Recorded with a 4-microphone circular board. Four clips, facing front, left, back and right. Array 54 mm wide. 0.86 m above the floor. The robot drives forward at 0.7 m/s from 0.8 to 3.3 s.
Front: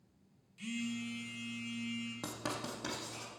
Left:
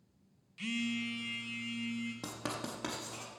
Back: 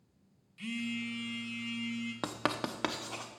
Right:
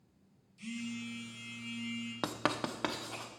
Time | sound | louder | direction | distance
0.6 | a phone buzzing | left 5 dB, back 3 dB | 110° left | 0.7 m
2.2 | writing | right 6 dB, back 6 dB | 125° right | 0.5 m